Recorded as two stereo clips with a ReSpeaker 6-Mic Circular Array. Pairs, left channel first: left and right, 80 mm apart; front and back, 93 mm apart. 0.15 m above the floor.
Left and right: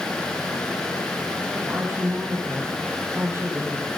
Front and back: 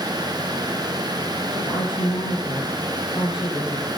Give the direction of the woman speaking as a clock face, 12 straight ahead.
1 o'clock.